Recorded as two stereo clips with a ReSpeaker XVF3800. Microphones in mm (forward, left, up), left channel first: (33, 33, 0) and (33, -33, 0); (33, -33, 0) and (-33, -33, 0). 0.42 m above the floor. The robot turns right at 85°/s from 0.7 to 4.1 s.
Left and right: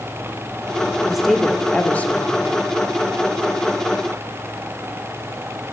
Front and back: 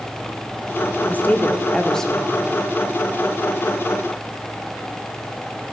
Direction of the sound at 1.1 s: 10° right.